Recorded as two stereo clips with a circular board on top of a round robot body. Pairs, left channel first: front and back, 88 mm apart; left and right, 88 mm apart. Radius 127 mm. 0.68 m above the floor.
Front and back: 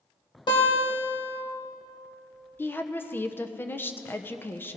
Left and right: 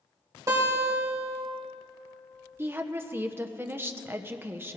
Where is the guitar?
35° right, 2.5 m.